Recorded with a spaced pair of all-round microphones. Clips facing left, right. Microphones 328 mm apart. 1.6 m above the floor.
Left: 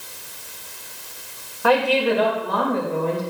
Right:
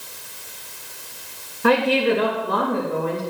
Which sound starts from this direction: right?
A woman speaking, at 1.6 s.